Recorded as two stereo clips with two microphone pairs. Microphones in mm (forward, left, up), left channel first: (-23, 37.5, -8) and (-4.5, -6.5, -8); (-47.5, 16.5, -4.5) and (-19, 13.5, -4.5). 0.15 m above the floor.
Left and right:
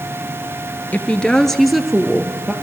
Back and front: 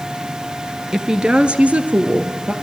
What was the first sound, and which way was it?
A woman speaking, 65° left.